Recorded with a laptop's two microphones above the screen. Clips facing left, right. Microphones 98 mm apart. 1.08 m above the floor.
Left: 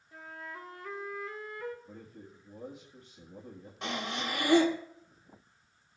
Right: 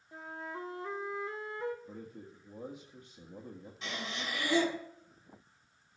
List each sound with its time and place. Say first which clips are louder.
0.1 s a flute: right 3 dB; 25° right (ahead or behind), 0.8 m
1.9 s a man speaking: right 2 dB; 15° right (ahead or behind), 1.5 m
3.8 s breathing: left 5 dB; 55° left (ahead or behind), 1.3 m